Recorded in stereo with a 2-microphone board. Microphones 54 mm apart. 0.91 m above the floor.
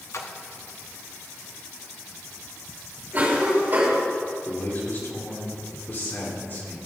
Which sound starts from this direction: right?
A cough, at 3.1 s.